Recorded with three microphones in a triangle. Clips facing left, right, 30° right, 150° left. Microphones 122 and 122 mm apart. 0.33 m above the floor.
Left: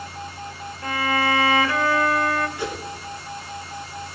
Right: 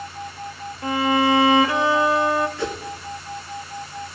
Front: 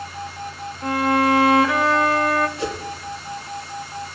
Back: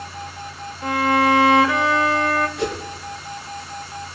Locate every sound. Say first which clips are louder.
0.8 s a violin: right 4 dB, back 1 dB; 120° right, 0.9 m
2.6 s a whoosh: right 2 dB, back 2 dB; 165° left, 3 m